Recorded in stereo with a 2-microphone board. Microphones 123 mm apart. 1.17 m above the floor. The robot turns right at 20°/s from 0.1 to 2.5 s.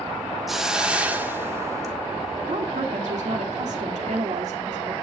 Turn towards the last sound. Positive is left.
turn(degrees=-75)  # may be behind; listen again after turning